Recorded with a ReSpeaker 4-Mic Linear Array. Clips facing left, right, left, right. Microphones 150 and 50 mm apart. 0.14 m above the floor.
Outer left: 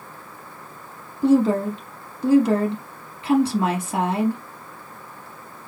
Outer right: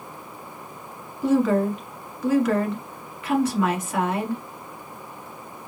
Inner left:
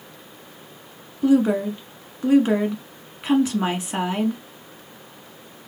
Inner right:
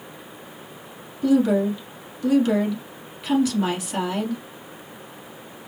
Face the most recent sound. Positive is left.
turn(degrees=30)  # may be behind; listen again after turning